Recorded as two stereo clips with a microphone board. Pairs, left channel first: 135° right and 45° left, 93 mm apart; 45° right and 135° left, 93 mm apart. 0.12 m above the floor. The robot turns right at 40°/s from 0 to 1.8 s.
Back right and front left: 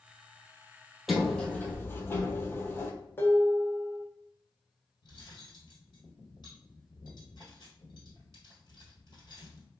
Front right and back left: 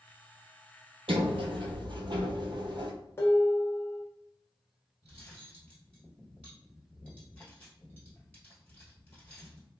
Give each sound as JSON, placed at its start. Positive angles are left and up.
{"t": 1.1, "sound": "a sliding door", "azimuth_deg": 135, "distance_m": 0.6}
{"t": 3.2, "sound": "dishes clattering", "azimuth_deg": -85, "distance_m": 1.0}
{"t": 5.0, "sound": "cutlery clinking", "azimuth_deg": -110, "distance_m": 1.6}